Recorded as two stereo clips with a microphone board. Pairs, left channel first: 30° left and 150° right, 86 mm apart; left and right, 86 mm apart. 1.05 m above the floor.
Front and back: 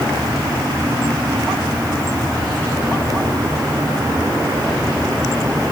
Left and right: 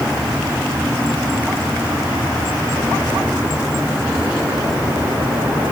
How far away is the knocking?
No knocking in this recording.